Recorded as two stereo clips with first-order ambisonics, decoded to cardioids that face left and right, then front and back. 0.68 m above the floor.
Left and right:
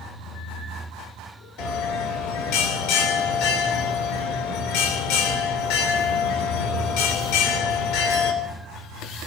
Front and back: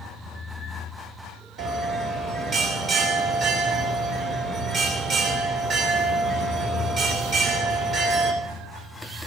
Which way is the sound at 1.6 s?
95° left.